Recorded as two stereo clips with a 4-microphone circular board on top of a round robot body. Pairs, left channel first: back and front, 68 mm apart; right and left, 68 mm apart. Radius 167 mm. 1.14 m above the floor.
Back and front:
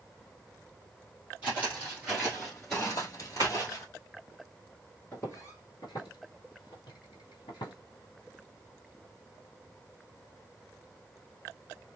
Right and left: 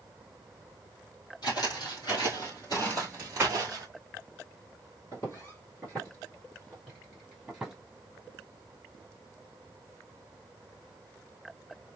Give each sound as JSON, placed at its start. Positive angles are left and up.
{"t": 1.4, "sound": "footsteps", "azimuth_deg": -65, "distance_m": 2.0}
{"t": 3.4, "sound": "tapping", "azimuth_deg": 20, "distance_m": 0.9}
{"t": 5.1, "sound": "footsteps", "azimuth_deg": -120, "distance_m": 1.1}